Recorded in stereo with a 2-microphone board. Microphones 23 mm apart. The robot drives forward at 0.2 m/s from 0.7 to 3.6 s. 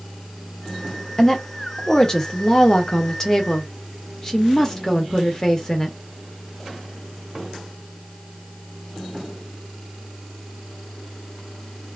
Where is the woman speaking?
20° left (ahead or behind), 0.8 m; by 6.0 s 25° left (ahead or behind), 0.7 m.